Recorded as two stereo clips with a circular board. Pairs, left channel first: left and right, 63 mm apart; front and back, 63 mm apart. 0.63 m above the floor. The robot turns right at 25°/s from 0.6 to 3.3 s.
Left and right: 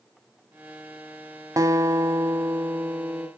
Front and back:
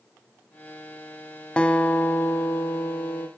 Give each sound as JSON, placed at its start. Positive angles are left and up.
{"t": 1.6, "sound": "a guitar", "azimuth_deg": -70, "distance_m": 1.0}